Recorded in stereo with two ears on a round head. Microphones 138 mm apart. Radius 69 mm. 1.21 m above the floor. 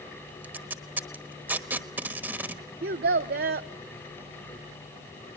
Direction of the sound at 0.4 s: 10° right (ahead or behind).